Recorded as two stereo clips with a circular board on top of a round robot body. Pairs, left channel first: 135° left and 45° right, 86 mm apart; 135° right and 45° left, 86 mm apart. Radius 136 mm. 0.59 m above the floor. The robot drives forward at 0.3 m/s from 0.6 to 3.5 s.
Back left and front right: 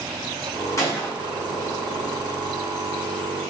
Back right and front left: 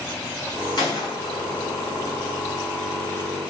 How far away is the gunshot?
About 5 m.